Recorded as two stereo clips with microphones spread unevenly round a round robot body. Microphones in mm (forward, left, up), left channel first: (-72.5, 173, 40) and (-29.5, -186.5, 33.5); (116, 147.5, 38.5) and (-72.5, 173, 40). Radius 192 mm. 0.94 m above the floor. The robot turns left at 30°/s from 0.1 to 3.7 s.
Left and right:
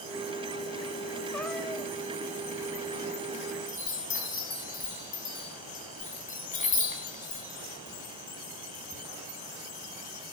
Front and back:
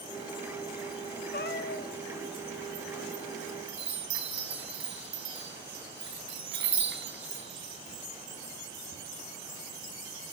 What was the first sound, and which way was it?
A cat meowing, 15° left.